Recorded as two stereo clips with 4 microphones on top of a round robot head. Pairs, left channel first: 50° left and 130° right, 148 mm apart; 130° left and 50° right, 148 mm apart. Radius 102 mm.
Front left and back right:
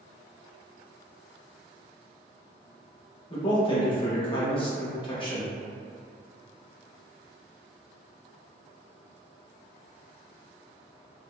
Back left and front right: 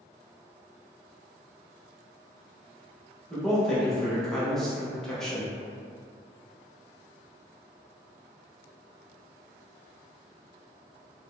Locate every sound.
3.3 s a man speaking: 45° left, 1.1 m